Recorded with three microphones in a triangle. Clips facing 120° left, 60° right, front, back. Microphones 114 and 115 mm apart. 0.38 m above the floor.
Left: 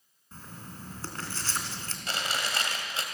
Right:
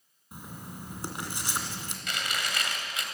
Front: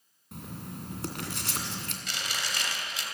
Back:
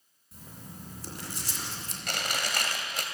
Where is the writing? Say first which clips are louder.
Right 3 dB, front 6 dB; 15° left, 2.5 m.